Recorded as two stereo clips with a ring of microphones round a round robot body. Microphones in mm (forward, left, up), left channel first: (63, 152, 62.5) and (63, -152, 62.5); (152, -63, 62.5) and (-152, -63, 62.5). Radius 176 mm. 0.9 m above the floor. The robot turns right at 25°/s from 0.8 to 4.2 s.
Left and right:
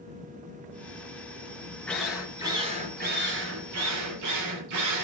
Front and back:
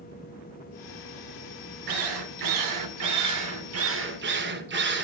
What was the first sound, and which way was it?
A drill, 175° left.